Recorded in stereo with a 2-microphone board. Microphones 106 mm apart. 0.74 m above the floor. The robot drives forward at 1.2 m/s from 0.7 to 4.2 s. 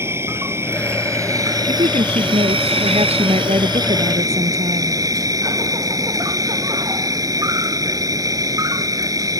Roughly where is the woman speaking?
Right.